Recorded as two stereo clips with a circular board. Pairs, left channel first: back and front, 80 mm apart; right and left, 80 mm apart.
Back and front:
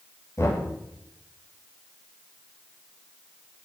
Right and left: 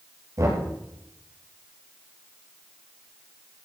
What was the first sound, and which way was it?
Knocking, 135° left.